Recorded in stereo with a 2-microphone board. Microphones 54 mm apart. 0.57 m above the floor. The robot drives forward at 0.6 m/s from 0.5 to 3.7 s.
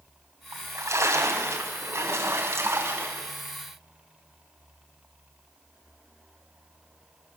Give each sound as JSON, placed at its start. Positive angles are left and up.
{"t": 0.5, "sound": "a splash", "side_deg": -65, "distance_m": 3.5}